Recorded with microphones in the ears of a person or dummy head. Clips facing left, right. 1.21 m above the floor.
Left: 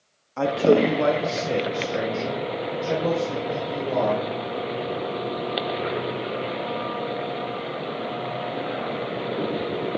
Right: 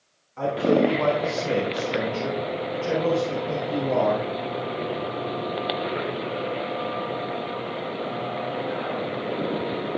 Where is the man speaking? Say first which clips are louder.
Left 2 dB; 65° left (ahead or behind), 1.5 m; by 4.3 s 50° right (ahead or behind), 5.5 m.